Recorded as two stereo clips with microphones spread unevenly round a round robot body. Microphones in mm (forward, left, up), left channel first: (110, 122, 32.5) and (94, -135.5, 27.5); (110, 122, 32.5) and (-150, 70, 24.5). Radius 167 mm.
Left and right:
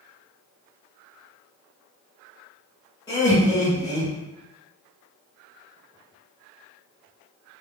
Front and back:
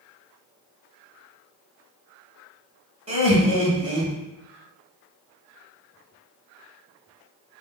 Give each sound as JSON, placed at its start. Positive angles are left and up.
{"t": 3.1, "sound": "laughter", "azimuth_deg": 155, "distance_m": 1.0}